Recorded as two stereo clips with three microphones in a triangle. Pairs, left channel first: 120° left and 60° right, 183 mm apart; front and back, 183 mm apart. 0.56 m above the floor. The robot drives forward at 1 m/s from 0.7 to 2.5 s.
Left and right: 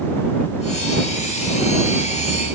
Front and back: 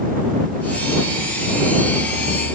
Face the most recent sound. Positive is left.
No sound to turn to.